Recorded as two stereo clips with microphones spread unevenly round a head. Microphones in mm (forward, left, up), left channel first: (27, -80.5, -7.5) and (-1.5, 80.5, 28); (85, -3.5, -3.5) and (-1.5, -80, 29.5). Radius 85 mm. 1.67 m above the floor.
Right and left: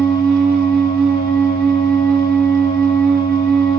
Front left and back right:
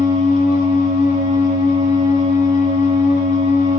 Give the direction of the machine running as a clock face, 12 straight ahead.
10 o'clock.